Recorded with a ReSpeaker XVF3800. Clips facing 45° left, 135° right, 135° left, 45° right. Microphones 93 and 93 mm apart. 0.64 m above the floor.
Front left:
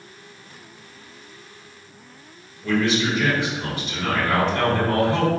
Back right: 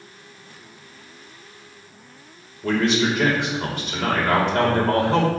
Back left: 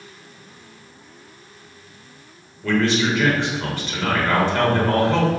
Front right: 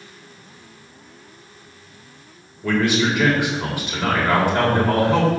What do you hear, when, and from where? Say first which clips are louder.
2.6 s a man speaking: back right 1 dB, even; 120° right, 3 m